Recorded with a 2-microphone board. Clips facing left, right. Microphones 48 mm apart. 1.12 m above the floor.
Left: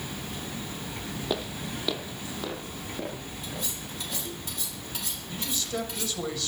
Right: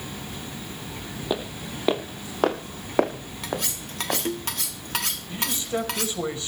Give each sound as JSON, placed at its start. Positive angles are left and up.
{"t": 1.3, "sound": "footsteps", "side_deg": -10, "distance_m": 2.0}
{"t": 3.4, "sound": "cutlery clinking", "side_deg": -70, "distance_m": 1.4}
{"t": 5.3, "sound": "a man speaking", "side_deg": -25, "distance_m": 5.0}